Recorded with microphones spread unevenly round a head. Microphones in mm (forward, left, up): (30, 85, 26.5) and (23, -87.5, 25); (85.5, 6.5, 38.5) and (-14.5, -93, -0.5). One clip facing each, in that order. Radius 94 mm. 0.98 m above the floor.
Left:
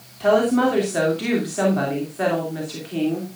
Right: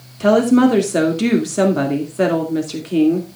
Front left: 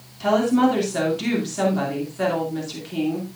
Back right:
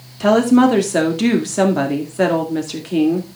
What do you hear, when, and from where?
0.2 s a woman speaking: 130° right, 2 m